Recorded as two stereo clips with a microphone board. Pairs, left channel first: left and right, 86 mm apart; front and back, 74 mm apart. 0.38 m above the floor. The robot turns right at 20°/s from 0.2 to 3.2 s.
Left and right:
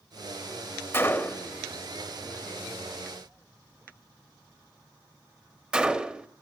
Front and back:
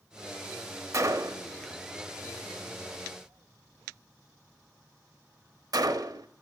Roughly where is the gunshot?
Behind left.